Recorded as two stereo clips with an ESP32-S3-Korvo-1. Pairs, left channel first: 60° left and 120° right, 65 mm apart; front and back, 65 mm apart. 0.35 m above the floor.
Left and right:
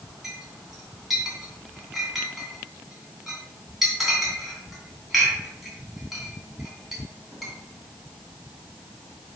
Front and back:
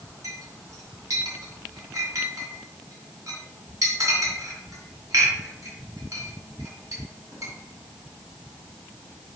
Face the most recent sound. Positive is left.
turn(degrees=155)